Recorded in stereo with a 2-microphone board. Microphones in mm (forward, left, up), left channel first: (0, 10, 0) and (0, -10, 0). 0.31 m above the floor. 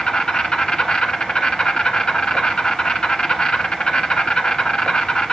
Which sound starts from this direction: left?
An insect, at 0.0 s.